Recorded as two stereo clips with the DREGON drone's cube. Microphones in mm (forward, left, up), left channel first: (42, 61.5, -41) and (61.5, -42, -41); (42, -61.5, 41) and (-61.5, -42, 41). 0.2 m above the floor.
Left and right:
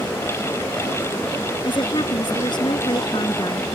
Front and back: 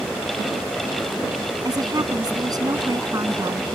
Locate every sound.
1.6 s a woman speaking: 125° left